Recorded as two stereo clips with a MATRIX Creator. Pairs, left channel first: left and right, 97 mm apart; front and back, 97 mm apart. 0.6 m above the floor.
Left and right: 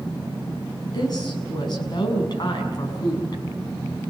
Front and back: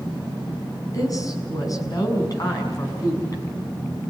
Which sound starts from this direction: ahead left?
A woman speaking, at 0.9 s.